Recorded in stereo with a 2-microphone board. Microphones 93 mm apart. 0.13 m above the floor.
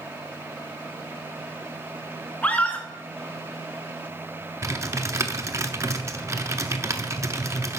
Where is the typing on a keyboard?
35° right (ahead or behind), 0.7 m.